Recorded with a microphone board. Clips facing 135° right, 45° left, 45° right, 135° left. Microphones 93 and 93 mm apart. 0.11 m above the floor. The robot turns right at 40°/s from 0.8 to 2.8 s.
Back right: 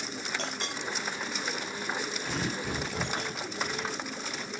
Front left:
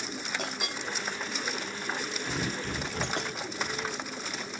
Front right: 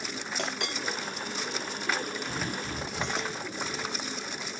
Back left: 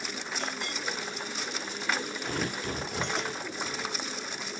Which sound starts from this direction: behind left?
Tearing paper, at 2.2 s.